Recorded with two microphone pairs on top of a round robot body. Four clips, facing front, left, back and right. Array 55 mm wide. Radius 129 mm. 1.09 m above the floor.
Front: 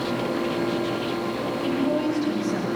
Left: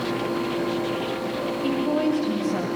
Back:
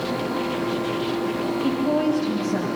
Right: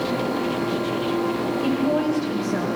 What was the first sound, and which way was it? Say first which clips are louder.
A woman speaking: right 1 dB, back 2 dB; 85° right.